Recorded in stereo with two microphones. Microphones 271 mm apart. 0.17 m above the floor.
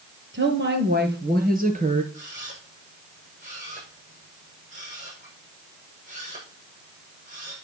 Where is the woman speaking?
45° right (ahead or behind), 4 m; by 2.0 s 25° right (ahead or behind), 3.5 m.